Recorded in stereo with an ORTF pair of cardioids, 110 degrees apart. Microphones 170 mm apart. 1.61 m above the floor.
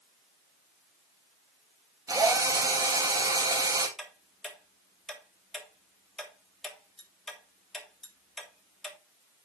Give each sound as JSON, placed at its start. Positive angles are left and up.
{"t": 2.1, "sound": "a drill", "azimuth_deg": -20, "distance_m": 3.5}
{"t": 4.0, "sound": "ticking", "azimuth_deg": 5, "distance_m": 3.0}